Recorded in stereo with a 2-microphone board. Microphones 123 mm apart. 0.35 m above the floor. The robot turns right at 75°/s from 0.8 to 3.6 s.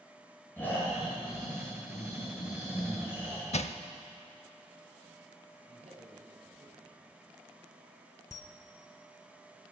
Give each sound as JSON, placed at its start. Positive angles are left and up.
{"t": 0.6, "sound": "snoring", "azimuth_deg": 15, "distance_m": 7.5}
{"t": 3.5, "sound": "crushing", "side_deg": 65, "distance_m": 0.6}
{"t": 5.7, "sound": "a man speaking", "side_deg": -65, "distance_m": 4.0}
{"t": 8.3, "sound": "a camera shutter", "side_deg": 25, "distance_m": 0.9}